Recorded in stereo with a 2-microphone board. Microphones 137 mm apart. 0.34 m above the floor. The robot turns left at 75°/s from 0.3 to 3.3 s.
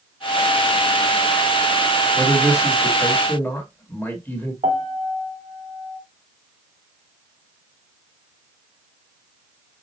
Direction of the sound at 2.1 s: 15° left (ahead or behind).